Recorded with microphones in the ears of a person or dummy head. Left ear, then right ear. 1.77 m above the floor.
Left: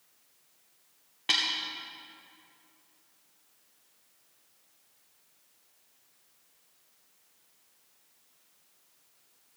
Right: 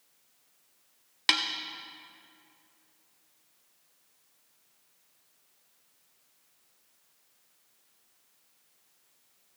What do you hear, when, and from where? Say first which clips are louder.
1.3 s a snare drum: right 1 dB; 50° right (ahead or behind), 1.0 m